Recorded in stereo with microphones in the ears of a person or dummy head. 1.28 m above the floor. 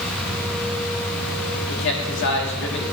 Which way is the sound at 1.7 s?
65° left (ahead or behind).